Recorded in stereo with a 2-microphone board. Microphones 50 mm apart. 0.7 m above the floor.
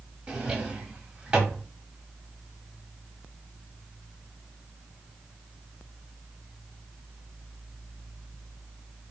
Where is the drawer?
20° right (ahead or behind), 0.7 m.